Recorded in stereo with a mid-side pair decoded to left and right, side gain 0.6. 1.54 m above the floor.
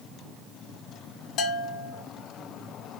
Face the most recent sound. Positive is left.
turn(degrees=70)